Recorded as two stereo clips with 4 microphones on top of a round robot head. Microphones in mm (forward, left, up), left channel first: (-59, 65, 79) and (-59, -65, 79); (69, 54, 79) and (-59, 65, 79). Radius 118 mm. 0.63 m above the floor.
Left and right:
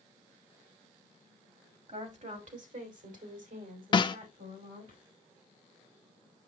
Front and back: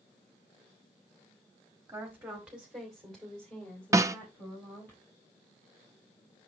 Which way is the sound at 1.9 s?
115° right.